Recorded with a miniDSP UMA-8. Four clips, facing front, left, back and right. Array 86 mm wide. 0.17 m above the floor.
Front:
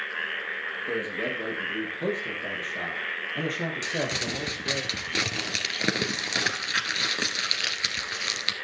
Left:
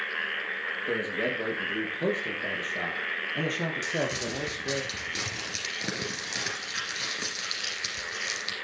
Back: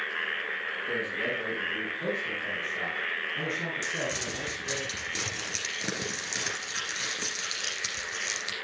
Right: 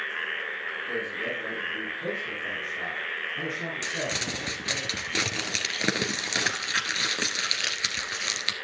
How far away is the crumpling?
About 1.9 m.